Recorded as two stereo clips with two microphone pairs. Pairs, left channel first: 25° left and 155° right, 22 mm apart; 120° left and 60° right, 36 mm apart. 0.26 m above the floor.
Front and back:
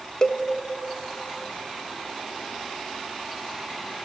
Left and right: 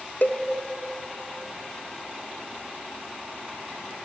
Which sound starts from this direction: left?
A cowbell, at 0.2 s.